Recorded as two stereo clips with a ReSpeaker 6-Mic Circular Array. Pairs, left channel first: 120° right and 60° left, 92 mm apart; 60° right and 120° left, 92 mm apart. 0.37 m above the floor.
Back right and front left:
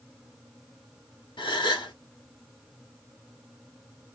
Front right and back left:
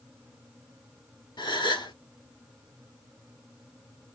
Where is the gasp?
90° right, 1.1 m.